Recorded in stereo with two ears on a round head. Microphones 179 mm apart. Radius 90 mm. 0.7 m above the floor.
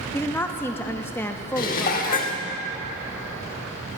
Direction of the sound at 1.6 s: 45° left (ahead or behind).